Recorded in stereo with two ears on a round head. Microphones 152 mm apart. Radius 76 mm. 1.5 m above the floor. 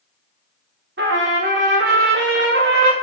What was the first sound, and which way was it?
A trumpet, 70° right (ahead or behind).